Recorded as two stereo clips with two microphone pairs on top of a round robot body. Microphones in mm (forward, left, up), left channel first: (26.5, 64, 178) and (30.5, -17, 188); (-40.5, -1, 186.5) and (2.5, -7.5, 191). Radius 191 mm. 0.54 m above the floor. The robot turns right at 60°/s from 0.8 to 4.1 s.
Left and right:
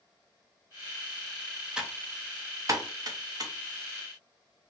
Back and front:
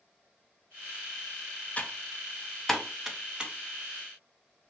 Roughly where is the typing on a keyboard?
Behind.